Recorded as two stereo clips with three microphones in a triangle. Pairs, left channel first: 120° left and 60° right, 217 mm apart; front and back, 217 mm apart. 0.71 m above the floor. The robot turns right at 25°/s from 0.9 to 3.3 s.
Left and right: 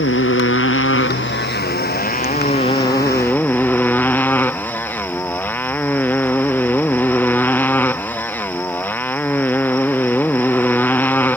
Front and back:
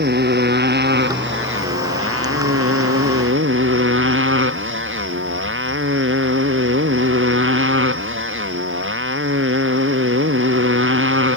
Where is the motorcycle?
140° left; by 11.4 s 160° right.